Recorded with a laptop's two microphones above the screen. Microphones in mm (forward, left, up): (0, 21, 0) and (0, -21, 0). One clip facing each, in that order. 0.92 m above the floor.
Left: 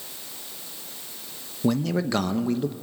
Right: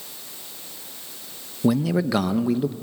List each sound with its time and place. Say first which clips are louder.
1.6 s a man speaking: right 3 dB; 10° right (ahead or behind), 0.9 m